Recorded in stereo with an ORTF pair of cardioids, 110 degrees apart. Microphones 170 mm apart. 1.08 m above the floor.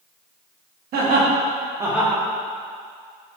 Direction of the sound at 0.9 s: 70° right.